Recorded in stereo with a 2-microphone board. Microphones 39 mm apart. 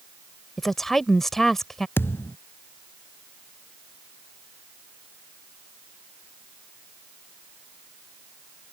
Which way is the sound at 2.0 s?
65° left (ahead or behind).